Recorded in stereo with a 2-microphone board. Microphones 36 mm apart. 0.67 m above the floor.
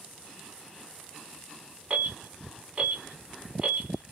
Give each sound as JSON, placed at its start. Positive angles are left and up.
{"t": 1.9, "sound": "an alarm", "side_deg": -40, "distance_m": 1.9}